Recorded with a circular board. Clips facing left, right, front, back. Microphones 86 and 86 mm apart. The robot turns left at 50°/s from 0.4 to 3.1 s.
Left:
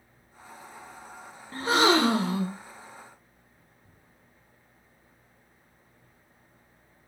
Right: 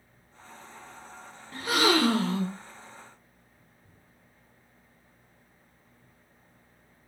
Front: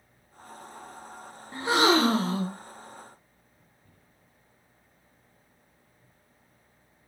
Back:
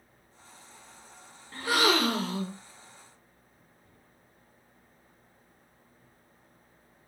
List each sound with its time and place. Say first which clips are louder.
1.5 s a gasp: left 3 dB, front 4 dB; 60° left, 0.5 m; by 2.6 s 10° left, 0.5 m